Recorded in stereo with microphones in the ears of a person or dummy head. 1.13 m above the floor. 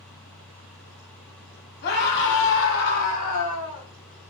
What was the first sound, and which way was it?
A scream, 50° left (ahead or behind).